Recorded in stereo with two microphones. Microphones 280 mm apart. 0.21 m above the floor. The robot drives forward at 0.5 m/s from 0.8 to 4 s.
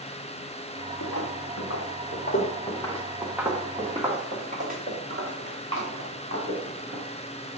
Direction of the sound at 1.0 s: 85° left.